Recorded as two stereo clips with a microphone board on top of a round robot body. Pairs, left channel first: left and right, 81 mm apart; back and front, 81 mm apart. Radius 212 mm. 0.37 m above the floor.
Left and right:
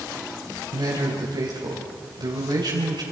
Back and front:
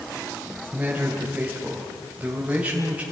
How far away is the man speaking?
About 3.5 m.